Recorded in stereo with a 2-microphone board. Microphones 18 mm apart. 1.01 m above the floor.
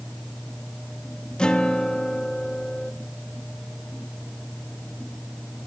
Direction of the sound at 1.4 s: 65° left (ahead or behind).